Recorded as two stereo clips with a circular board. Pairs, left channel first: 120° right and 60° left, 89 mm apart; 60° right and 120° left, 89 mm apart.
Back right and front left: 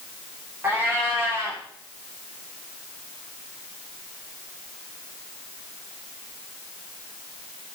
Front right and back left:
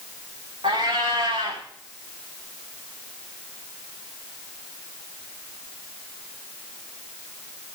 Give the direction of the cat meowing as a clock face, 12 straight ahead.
8 o'clock.